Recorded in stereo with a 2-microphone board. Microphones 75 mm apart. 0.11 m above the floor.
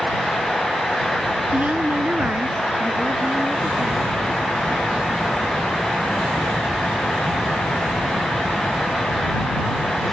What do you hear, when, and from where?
1.5 s a woman speaking: 15° right (ahead or behind); by 5.5 s 25° right (ahead or behind)